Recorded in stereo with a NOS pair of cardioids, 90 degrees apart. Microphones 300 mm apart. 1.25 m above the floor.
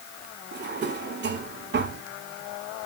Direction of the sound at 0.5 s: 35° right.